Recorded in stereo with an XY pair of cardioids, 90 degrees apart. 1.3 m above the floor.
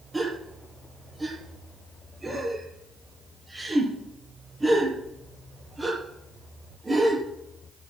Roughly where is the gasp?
Ahead.